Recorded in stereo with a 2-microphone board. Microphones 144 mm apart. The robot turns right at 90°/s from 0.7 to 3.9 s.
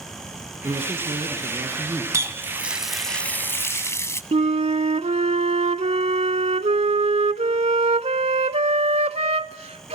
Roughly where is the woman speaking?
Behind right.